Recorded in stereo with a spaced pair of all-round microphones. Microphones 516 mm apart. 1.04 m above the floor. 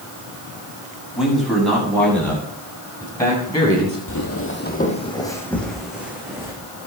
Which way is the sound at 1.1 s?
Centre (ahead or behind).